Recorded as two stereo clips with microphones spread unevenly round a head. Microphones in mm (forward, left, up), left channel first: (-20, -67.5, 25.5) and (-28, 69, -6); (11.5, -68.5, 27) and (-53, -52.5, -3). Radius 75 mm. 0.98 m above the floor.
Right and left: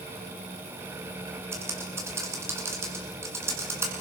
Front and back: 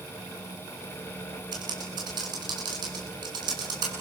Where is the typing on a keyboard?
165° left, 7 m.